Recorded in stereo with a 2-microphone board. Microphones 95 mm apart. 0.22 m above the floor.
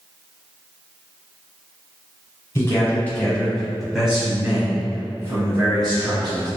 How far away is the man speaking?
About 1.3 m.